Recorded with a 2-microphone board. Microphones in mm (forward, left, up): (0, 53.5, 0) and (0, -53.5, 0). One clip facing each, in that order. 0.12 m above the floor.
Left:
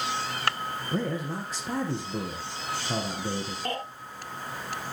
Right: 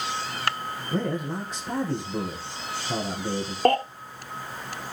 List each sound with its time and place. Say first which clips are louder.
0.9 s a man speaking: right 3 dB; centre (ahead or behind), 2.5 m
3.6 s a baby crying: right 15 dB; 65° right (ahead or behind), 1.5 m